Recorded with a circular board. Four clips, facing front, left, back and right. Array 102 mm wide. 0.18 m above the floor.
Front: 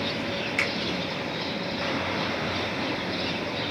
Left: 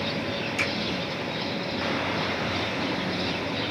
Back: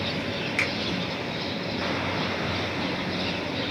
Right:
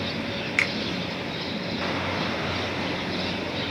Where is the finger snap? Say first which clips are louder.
Right 3 dB, even; 95° right, 1.7 m.